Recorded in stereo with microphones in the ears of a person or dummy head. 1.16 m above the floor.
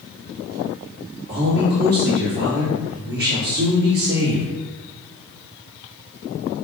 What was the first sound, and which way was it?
A man speaking, 75° right (ahead or behind).